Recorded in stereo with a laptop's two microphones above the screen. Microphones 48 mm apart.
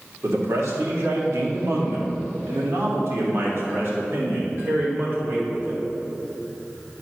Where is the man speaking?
75° right (ahead or behind), 1.9 m; by 5.8 s 45° right (ahead or behind), 4 m.